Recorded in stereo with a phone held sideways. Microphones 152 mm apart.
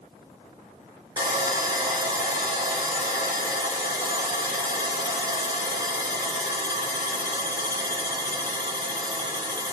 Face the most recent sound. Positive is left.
turn(degrees=-25)  # may be behind; listen again after turning